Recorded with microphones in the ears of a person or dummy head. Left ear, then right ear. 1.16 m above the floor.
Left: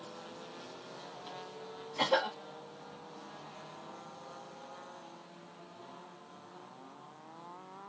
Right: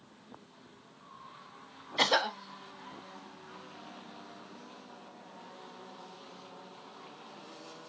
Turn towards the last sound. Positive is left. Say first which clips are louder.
# right 3 dB
turn(degrees=-50)  # may be behind; listen again after turning